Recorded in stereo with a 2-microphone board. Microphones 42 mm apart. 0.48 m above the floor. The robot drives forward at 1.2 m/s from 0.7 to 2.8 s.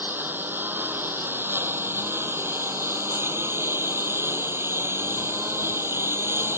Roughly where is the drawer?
I don't hear a drawer.